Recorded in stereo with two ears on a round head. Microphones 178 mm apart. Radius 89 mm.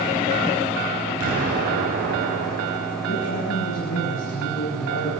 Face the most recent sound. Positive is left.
turn(degrees=70)  # may be behind; listen again after turning